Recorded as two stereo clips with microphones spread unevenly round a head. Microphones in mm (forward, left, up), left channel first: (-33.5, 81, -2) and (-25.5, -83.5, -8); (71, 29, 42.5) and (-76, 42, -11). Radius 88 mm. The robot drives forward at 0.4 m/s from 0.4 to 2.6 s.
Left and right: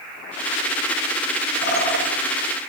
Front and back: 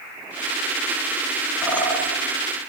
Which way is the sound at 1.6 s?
85° left.